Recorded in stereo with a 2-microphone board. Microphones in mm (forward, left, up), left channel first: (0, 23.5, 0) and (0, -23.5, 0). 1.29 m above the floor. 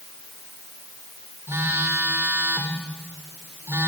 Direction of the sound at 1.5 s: 75° right (ahead or behind).